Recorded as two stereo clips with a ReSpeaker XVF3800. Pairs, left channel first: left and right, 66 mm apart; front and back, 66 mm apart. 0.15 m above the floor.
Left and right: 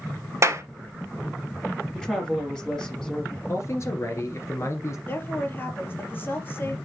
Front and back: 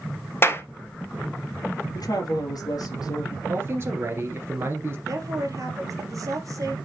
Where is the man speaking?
130° left, 2 m.